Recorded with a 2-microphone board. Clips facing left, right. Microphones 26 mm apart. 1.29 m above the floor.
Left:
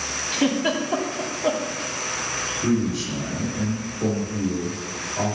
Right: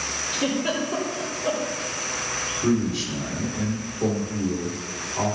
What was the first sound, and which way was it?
A giggle, 65° left (ahead or behind).